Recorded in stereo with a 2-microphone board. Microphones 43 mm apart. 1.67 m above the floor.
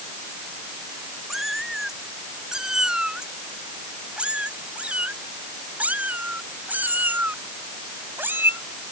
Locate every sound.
1.3 s a cat meowing: 5° right (ahead or behind); by 8.6 s 60° right (ahead or behind)